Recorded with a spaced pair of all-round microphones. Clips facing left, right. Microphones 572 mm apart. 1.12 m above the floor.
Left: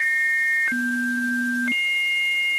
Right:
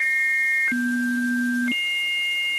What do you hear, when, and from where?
Only background noise.